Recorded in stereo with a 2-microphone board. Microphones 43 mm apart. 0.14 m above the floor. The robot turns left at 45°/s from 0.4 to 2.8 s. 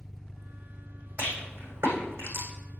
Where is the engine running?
5° right, 1.1 m; by 2.8 s 115° right, 1.1 m.